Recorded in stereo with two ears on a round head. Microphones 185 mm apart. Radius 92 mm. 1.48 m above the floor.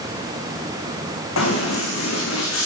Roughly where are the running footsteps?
Left.